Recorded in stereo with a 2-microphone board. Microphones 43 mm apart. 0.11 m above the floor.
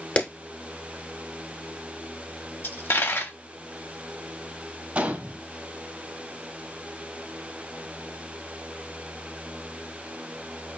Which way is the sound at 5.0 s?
35° right (ahead or behind).